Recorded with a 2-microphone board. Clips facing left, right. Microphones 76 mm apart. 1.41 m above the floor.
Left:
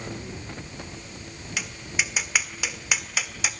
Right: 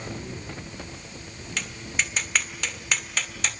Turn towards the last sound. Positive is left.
turn(degrees=10)  # may be behind; listen again after turning